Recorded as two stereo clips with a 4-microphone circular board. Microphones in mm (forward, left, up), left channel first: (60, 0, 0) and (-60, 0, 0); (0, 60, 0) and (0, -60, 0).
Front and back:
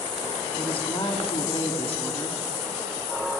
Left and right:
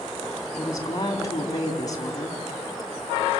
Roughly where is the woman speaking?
Ahead left.